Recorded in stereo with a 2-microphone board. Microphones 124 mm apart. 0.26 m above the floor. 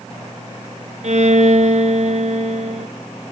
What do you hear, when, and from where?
1.0 s a violin: 70° right (ahead or behind), 1.1 m